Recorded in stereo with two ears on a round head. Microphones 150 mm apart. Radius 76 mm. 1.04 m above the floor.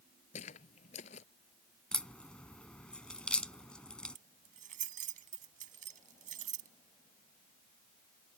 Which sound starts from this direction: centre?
A crack, at 1.9 s.